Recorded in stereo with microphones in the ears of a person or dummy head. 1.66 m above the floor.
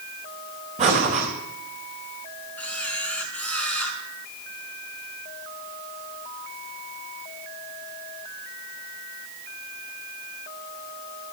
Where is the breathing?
40° right (ahead or behind), 4 m.